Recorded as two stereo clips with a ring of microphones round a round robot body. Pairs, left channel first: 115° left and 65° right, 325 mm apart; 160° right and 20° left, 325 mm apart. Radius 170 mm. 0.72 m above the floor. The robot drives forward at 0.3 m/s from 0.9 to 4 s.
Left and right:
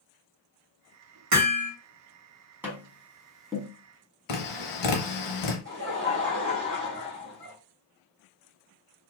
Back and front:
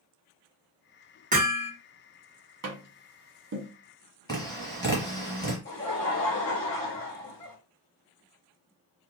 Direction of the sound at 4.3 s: 125° left.